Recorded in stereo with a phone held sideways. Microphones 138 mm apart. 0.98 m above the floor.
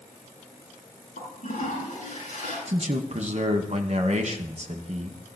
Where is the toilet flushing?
75° left (ahead or behind), 7 m.